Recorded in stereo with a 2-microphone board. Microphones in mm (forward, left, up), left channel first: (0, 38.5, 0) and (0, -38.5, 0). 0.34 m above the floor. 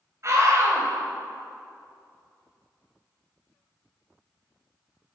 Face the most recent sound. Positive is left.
turn(degrees=-45)  # may be behind; listen again after turning